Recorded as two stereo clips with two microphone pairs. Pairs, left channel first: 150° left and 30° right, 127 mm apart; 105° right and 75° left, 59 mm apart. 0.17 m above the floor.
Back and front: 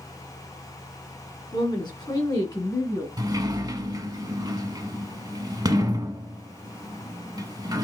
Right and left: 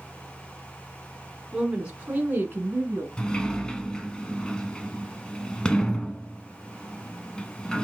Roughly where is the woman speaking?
Behind left.